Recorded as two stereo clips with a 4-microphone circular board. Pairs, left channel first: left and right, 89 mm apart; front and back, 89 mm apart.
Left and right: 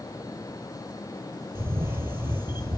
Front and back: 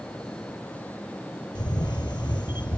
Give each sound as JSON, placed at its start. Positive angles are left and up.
{"t": 1.6, "sound": "a camera shutter", "azimuth_deg": -35, "distance_m": 1.0}